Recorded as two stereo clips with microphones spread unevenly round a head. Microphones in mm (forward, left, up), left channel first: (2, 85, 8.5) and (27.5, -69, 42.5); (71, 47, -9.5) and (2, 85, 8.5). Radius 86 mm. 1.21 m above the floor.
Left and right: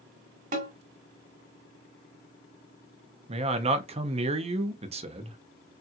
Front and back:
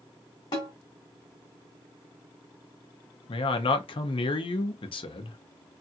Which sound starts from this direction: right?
A snare drum, at 0.5 s.